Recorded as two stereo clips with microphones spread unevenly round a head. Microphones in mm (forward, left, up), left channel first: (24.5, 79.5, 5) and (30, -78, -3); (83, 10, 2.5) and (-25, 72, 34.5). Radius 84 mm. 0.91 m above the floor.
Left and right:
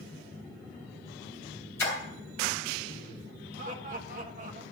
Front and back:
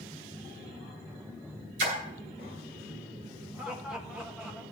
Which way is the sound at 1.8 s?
170° left.